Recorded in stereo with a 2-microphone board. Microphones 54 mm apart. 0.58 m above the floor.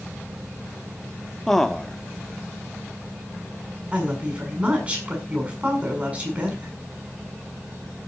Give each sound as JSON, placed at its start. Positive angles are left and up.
{"t": 1.5, "sound": "a man speaking", "side_deg": 5, "distance_m": 1.3}
{"t": 3.9, "sound": "a woman speaking", "side_deg": -25, "distance_m": 6.5}